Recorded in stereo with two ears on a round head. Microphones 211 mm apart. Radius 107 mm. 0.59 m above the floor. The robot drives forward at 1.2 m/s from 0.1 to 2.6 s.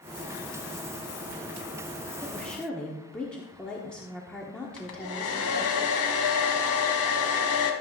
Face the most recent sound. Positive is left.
turn(degrees=65)  # may be behind; listen again after turning